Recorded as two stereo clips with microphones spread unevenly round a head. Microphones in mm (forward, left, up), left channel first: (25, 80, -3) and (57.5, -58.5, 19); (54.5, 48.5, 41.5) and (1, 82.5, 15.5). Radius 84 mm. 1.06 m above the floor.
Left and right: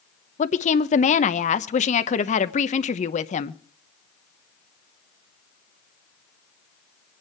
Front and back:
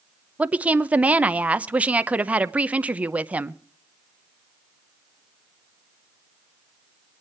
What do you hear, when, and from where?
0.4 s a woman speaking: 100° left, 0.9 m